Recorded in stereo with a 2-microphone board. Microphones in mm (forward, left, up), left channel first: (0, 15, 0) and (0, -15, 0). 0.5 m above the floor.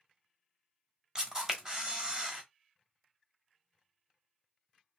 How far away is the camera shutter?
About 1.2 m.